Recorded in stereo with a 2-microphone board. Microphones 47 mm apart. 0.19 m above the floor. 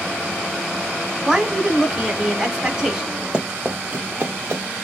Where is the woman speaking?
15° right (ahead or behind), 1.1 m.